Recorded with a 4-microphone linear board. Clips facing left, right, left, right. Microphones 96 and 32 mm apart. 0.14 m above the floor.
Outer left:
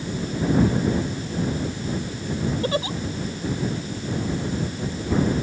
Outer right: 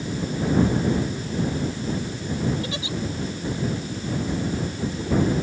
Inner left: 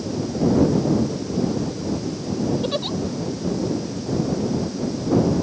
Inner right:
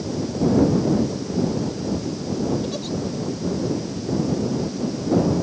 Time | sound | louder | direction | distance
2.6 | a giggle | outer left 6 dB, inner left 3 dB | 45° left (ahead or behind) | ?